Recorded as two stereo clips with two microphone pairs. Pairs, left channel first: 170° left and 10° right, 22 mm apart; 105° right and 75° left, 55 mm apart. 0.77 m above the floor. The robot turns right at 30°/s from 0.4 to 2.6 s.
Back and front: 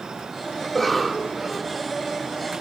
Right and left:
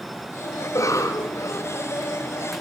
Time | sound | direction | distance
0.6 | a cough | 115° right | 3 m